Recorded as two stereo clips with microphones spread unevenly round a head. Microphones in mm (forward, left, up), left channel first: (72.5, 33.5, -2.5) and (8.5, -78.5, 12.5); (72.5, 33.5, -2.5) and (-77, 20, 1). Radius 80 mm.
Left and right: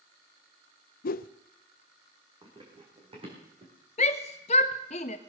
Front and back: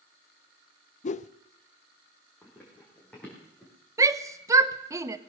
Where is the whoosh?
50° left, 0.5 m.